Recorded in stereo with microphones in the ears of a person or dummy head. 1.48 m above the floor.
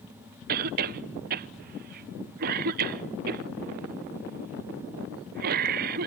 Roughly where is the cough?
Right.